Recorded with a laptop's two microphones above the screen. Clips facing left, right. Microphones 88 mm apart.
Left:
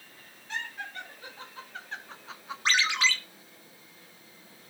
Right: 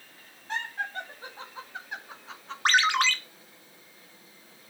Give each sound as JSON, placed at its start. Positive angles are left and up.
{"t": 0.5, "sound": "laughter", "side_deg": -40, "distance_m": 2.5}
{"t": 2.6, "sound": "a ringtone", "side_deg": -55, "distance_m": 1.0}